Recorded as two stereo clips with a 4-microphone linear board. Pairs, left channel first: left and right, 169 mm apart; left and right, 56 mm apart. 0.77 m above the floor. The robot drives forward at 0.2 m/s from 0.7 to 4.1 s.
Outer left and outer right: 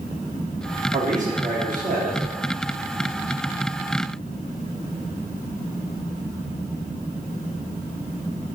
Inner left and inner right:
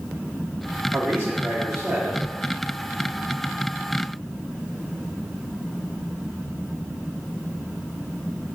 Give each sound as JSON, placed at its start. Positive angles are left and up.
{"t": 0.9, "sound": "a man speaking", "side_deg": -45, "distance_m": 1.2}